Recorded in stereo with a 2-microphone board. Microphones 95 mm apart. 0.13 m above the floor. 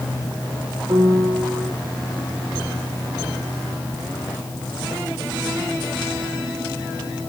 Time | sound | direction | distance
0.9 | a piano | 35° right (ahead or behind) | 3.5 m